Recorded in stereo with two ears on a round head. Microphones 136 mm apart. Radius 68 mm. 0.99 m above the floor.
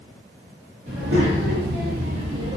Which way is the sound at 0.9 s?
70° right (ahead or behind).